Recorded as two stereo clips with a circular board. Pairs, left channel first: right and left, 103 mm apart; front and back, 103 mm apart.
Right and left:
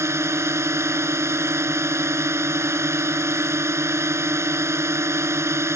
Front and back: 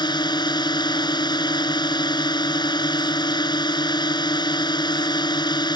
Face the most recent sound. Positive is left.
turn(degrees=35)